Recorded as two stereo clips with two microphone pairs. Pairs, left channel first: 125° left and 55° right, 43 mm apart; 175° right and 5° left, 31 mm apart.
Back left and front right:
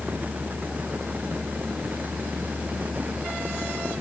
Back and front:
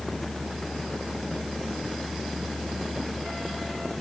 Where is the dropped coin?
I don't hear a dropped coin.